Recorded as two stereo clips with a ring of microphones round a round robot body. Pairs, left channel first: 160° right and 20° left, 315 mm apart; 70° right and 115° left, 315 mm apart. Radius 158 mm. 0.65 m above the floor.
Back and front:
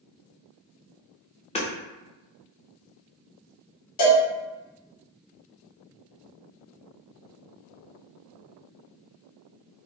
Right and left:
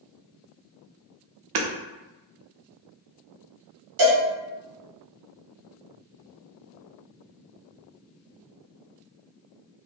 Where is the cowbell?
160° left, 1.7 m.